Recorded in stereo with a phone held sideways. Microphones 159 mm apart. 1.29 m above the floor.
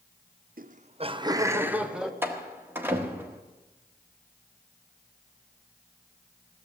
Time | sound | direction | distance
0.6 | laughter | 65° right (ahead or behind) | 0.6 m
2.2 | a door slam | 15° right (ahead or behind) | 1.4 m